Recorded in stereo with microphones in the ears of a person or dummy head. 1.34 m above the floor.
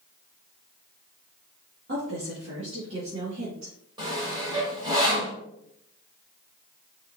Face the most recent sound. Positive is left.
turn(degrees=-30)  # may be behind; listen again after turning